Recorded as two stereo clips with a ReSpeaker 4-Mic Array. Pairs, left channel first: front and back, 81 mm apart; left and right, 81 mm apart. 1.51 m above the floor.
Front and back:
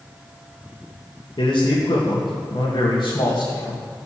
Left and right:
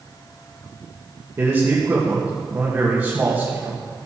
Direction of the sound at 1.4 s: 30° right.